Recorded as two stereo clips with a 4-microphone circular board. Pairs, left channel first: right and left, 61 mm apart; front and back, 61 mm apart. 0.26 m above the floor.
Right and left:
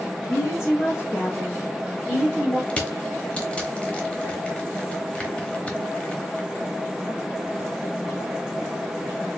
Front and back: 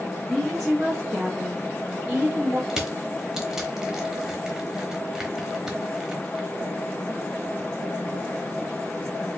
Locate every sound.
0.2 s a woman speaking: 80° right, 2.5 m; by 2.6 s 170° right, 1.3 m
2.7 s crushing: 110° right, 0.8 m